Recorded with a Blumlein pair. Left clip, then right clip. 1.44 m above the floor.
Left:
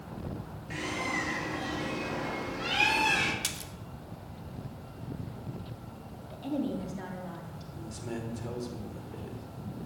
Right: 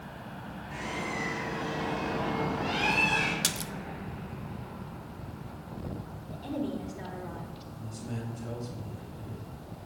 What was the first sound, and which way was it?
A bird, 55° left.